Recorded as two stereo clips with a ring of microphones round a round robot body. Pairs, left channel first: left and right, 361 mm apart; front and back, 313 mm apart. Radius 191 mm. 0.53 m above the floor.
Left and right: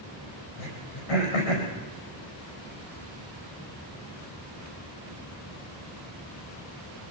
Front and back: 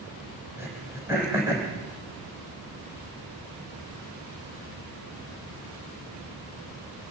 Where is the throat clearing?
95° left, 6 m.